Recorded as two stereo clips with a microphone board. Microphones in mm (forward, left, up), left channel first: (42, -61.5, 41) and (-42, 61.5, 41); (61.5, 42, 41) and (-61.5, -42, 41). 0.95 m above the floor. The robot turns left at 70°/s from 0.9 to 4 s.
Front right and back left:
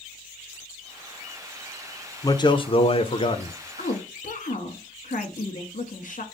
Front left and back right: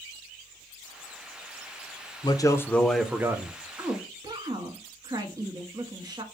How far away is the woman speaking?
About 1.2 m.